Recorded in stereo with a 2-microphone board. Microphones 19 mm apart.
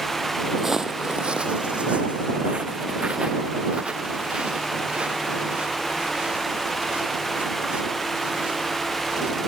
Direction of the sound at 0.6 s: 15° right (ahead or behind).